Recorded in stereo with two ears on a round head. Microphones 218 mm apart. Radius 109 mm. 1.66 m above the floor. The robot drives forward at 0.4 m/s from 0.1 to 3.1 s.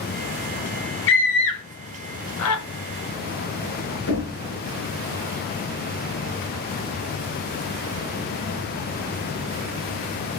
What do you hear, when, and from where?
1.1 s a scream: 50° left (ahead or behind), 1.6 m; by 2.6 s 70° left (ahead or behind), 1.3 m
4.1 s knocking: 60° left (ahead or behind), 4 m